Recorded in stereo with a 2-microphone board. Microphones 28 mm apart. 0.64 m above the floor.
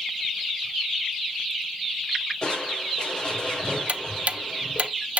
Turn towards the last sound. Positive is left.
turn(degrees=-55)  # may be behind; listen again after turning